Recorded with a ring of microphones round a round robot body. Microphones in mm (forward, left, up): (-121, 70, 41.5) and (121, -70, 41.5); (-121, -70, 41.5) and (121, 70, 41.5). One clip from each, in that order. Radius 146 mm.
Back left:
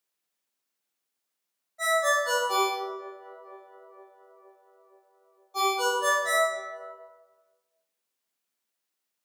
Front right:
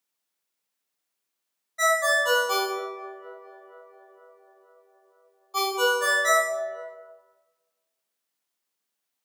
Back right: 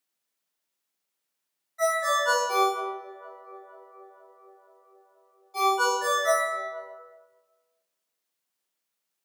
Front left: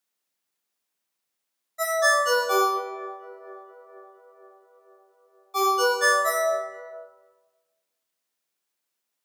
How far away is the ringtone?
About 1.1 m.